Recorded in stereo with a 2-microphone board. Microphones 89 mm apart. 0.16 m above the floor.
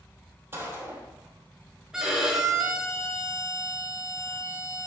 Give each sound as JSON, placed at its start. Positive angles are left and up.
{"t": 0.5, "sound": "a gunshot", "side_deg": -25, "distance_m": 3.0}
{"t": 1.9, "sound": "a violin", "side_deg": -5, "distance_m": 2.5}